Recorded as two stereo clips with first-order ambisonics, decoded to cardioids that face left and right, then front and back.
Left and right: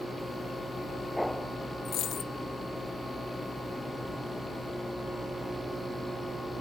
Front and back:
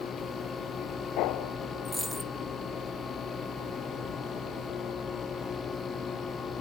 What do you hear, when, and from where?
1.9 s a dropped coin: 90° left, 0.5 m